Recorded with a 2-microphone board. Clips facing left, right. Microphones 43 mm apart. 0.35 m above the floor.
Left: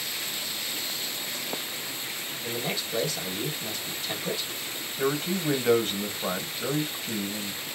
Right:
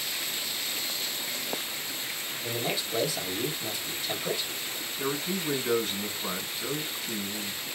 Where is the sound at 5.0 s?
45° left (ahead or behind), 2 m.